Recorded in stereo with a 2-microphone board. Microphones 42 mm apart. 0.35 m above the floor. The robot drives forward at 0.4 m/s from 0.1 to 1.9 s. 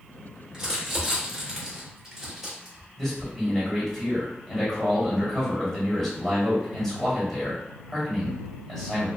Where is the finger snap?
No finger snap in this recording.